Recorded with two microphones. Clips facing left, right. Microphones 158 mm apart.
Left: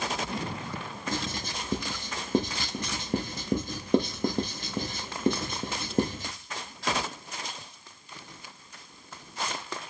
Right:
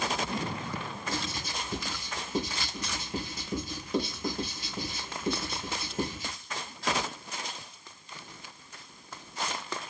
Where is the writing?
55° left (ahead or behind), 0.6 m.